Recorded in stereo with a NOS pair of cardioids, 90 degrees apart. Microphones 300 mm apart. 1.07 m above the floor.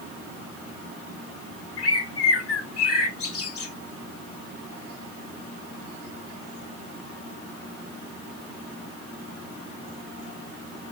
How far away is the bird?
About 1.2 m.